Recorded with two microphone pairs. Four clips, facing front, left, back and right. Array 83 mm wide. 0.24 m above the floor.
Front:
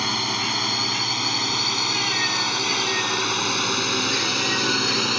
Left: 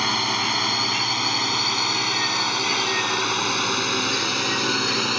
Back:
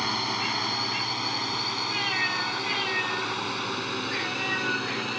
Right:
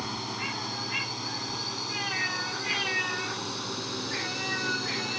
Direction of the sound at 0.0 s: 85° left.